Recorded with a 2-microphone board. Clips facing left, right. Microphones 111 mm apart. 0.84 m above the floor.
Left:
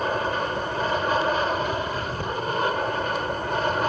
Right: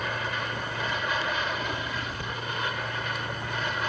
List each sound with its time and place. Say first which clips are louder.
0.0 s an aircraft: left 7 dB; 40° left (ahead or behind)